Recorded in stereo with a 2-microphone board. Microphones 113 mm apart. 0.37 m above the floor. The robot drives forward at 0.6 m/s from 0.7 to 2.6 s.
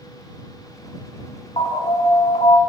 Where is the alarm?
55° left (ahead or behind), 2.5 m; by 2.6 s 65° left (ahead or behind), 2.5 m.